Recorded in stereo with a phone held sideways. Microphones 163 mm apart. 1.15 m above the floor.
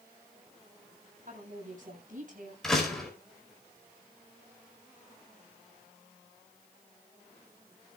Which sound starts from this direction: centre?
A door slam, at 2.6 s.